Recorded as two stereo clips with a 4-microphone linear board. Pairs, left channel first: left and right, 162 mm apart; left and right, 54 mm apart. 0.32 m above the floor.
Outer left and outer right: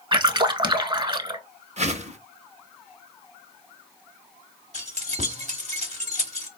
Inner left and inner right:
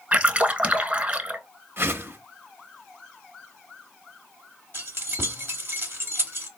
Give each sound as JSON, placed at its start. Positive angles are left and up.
{"t": 0.1, "sound": "a splash", "side_deg": -30, "distance_m": 0.5}
{"t": 1.8, "sound": "a whoosh", "side_deg": -45, "distance_m": 0.5}
{"t": 4.7, "sound": "keys jangling", "side_deg": -45, "distance_m": 1.0}